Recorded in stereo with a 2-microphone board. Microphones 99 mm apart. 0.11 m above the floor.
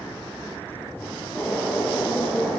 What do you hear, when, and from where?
1.3 s a bird: 5° left (ahead or behind), 3 m